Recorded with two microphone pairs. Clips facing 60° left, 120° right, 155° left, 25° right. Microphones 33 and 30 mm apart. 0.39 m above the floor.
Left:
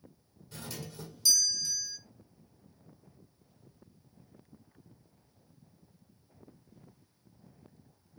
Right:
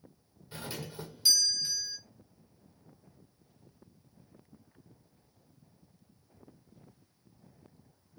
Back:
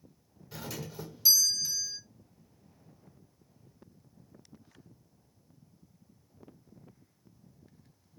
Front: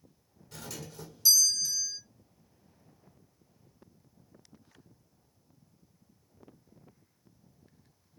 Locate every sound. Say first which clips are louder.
0.5 s a doorbell: right 3 dB, back 3 dB; 150° right, 1.6 m